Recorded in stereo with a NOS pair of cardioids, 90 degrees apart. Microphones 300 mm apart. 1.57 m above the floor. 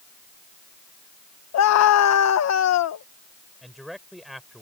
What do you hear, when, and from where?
1.5 s a scream: 60° left
3.6 s a man speaking: straight ahead